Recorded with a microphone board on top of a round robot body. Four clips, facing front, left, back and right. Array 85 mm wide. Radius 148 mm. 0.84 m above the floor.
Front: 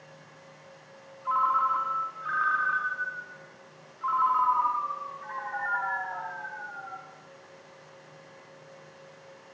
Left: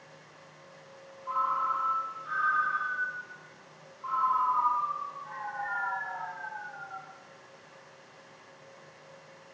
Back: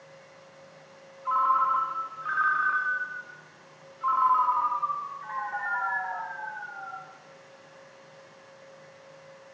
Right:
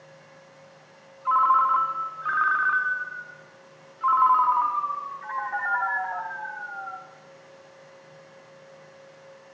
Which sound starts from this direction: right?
A ringtone, at 1.2 s.